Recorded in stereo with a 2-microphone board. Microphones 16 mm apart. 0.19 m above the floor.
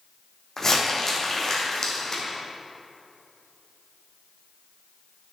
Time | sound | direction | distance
0.6 | crumpling | 20° left (ahead or behind) | 2 m